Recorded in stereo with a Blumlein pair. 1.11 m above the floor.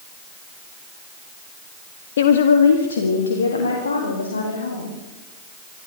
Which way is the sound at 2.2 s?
60° left.